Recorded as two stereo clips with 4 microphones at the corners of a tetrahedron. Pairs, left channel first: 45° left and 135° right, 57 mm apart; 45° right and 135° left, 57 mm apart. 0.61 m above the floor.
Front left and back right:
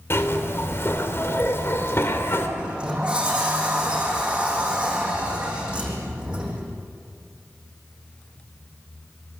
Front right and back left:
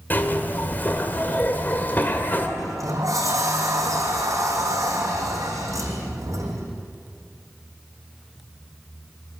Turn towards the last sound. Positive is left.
turn(degrees=150)